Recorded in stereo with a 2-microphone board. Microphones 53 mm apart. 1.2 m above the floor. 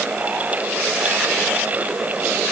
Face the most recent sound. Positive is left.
No sound to turn to.